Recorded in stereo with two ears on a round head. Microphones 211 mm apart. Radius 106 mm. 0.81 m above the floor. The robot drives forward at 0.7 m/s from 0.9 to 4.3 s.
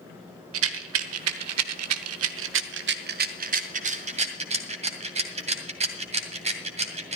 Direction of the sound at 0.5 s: 60° right (ahead or behind).